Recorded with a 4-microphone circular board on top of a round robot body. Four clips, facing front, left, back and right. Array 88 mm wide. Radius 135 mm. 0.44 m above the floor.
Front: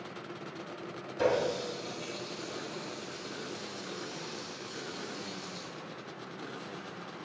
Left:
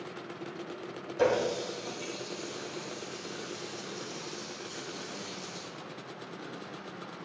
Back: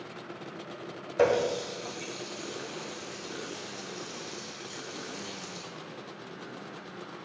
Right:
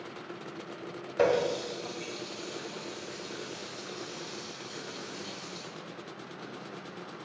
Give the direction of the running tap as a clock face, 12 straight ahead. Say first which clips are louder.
Right 1 dB, back 4 dB; 5 o'clock.